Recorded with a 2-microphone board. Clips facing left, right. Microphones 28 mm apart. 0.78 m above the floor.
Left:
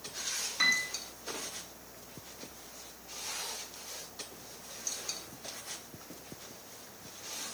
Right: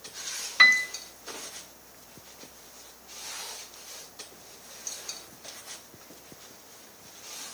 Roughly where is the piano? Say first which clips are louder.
Right 10 dB; right.